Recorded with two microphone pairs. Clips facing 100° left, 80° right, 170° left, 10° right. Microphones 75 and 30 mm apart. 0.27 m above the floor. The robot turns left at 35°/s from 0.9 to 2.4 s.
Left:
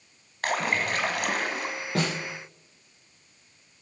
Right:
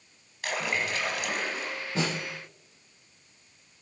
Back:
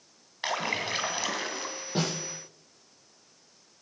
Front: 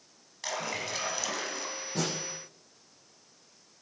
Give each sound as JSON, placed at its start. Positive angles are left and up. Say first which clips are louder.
{"t": 0.4, "sound": "a splash", "louder": "left 4 dB, back 5 dB", "azimuth_deg": 120, "distance_m": 1.5}
{"t": 1.9, "sound": "a snare drum", "louder": "left 2 dB, back 3 dB", "azimuth_deg": 120, "distance_m": 7.5}